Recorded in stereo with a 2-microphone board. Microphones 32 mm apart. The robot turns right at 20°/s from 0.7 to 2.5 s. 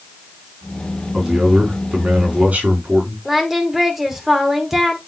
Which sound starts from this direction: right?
A man speaking, at 1.1 s.